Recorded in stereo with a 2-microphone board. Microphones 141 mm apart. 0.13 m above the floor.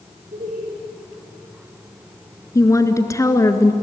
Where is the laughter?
75° right (ahead or behind), 4.5 m.